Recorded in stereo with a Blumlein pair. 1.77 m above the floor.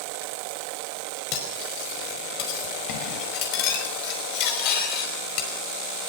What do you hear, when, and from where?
1.3 s cutlery clinking: 40° left, 5 m